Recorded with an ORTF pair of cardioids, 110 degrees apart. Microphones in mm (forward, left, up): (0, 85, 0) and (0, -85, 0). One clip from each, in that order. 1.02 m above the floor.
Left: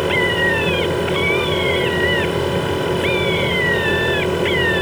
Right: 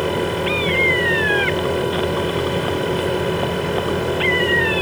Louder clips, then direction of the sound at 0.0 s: Left 4 dB; 10° left.